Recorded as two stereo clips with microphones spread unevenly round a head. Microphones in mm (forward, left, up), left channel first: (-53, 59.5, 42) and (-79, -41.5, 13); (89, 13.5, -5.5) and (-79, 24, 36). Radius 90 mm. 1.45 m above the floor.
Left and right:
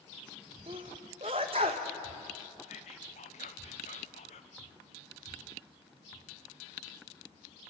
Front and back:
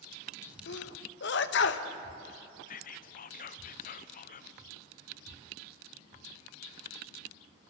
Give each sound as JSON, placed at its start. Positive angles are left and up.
{"t": 0.7, "sound": "a sneeze", "azimuth_deg": -40, "distance_m": 1.2}
{"t": 2.7, "sound": "whispering", "azimuth_deg": 25, "distance_m": 0.9}